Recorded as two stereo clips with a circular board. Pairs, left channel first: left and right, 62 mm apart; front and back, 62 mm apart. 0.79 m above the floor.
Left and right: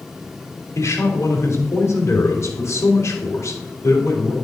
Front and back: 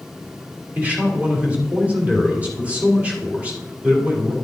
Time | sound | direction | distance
0.8 | a man speaking | 115° left | 2 m